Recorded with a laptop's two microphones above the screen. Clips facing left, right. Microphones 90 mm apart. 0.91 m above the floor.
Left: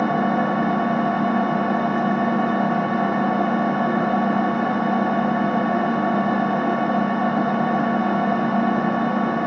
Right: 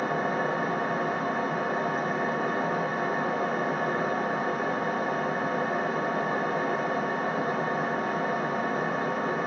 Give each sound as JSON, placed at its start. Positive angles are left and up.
{"t": 0.0, "sound": "an engine running", "side_deg": 60, "distance_m": 1.1}